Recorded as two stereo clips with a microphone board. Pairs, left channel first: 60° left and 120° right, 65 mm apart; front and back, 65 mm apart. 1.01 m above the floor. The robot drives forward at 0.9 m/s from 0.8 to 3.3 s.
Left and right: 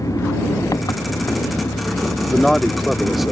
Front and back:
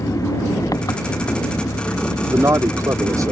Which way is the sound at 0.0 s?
30° left.